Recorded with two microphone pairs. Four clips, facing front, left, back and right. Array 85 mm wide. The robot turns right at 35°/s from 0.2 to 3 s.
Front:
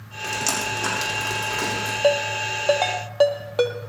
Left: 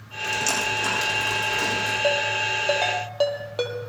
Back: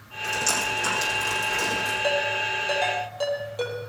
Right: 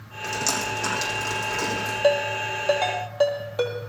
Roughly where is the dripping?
Ahead right.